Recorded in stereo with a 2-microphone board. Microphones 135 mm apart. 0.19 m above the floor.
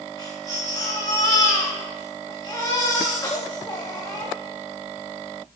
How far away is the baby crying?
About 7.5 m.